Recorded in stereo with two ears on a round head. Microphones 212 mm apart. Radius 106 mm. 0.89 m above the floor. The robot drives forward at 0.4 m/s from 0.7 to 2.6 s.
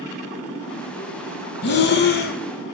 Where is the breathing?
45° left (ahead or behind), 0.6 m; by 2.4 s 40° left (ahead or behind), 0.6 m.